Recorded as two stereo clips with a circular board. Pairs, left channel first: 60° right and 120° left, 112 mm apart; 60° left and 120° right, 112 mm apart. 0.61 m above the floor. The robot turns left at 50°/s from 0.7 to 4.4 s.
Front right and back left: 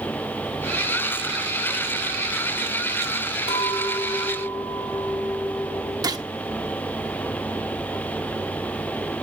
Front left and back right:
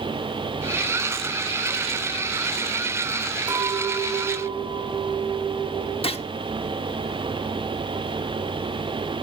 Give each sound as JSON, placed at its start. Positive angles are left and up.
{"t": 3.5, "sound": "a clink", "azimuth_deg": -40, "distance_m": 3.0}
{"t": 6.0, "sound": "a gunshot", "azimuth_deg": 70, "distance_m": 0.8}